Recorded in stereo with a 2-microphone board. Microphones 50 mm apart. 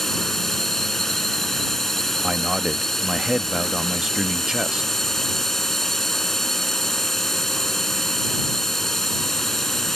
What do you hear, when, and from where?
0.0 s a drone: 5° left (ahead or behind)
2.2 s a man speaking: 10° right (ahead or behind)